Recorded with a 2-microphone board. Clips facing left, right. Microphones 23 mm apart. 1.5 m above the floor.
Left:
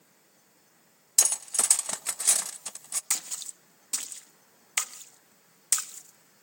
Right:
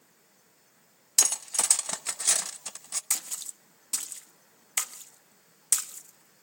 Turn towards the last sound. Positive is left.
turn(degrees=10)  # may be behind; listen again after turning